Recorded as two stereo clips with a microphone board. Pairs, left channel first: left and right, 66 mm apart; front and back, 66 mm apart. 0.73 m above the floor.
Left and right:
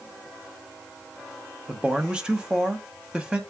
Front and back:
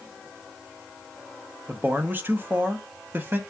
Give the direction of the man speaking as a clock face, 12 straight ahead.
5 o'clock.